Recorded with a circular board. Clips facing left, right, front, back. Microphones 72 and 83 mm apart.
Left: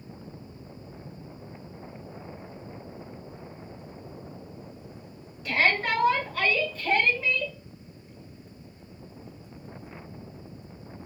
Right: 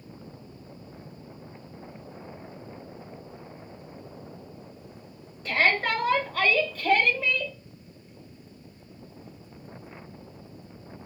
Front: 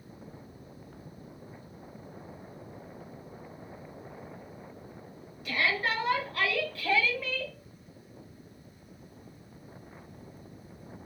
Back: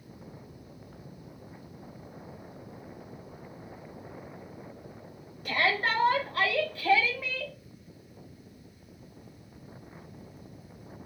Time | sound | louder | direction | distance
5.5 | a shout | right 1 dB, back 2 dB | 140° right | 3 m